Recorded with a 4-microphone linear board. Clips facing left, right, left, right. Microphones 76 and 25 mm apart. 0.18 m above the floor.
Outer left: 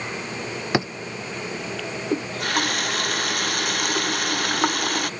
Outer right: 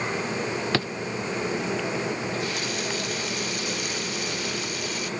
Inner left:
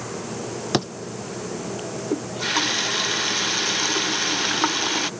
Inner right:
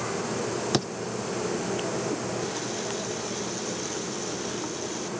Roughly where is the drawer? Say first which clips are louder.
Outer left 6 dB, inner left 5 dB; centre.